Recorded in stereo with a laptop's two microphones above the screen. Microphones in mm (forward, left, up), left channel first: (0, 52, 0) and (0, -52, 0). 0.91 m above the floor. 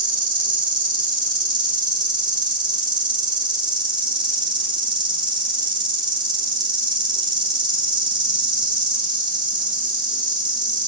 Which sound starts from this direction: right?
An insect, at 0.0 s.